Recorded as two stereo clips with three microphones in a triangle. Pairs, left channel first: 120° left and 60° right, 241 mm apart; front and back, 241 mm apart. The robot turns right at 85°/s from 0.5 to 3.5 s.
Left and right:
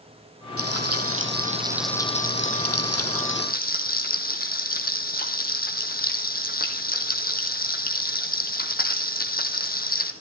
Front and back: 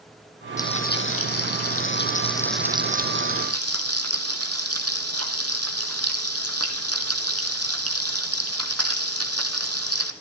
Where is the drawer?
I don't hear a drawer.